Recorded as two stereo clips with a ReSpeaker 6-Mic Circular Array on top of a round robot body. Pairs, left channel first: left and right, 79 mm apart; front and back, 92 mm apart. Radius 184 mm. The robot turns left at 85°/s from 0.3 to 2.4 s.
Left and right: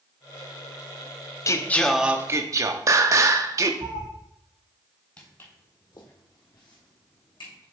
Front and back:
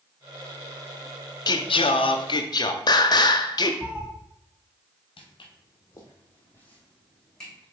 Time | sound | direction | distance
1.5 | singing | 40° left | 0.5 m
3.8 | a cat meowing | 105° right | 2.0 m
5.2 | footsteps | 20° left | 1.0 m